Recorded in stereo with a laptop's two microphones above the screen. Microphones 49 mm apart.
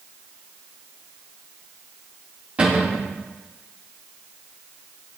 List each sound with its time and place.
2.6 s a cupboard door: 25° right (ahead or behind), 1.4 m